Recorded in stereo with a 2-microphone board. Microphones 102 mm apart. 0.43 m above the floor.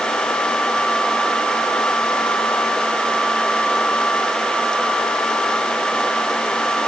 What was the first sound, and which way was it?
Only background noise.